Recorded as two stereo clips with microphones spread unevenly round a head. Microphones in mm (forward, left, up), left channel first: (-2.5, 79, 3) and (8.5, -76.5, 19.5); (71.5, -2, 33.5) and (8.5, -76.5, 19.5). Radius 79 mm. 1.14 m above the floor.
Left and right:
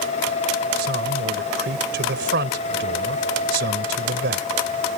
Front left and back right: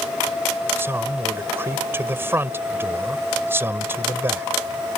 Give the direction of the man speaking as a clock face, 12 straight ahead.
2 o'clock.